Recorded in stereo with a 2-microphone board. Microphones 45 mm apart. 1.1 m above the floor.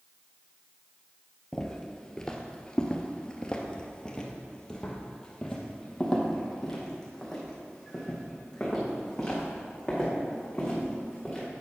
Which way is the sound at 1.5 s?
10° left (ahead or behind).